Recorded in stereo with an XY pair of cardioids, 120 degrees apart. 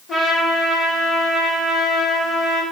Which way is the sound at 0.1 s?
45° left.